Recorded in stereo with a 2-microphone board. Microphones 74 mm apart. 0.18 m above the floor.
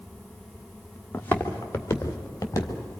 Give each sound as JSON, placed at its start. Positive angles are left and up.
{"t": 1.1, "sound": "footsteps", "side_deg": 20, "distance_m": 2.0}